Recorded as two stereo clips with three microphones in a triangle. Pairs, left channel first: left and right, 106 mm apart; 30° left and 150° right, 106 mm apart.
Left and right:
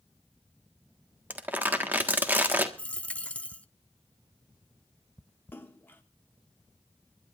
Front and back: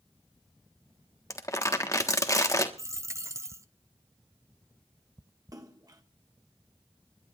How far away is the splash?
About 1.5 m.